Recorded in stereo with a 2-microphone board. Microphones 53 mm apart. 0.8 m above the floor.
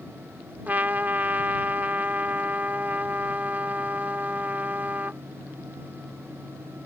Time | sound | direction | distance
0.7 | a trumpet | 35° right (ahead or behind) | ?